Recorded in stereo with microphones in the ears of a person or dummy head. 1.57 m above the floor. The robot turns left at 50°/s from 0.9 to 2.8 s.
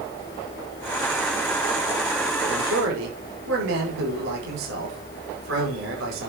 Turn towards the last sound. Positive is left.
turn(degrees=-80)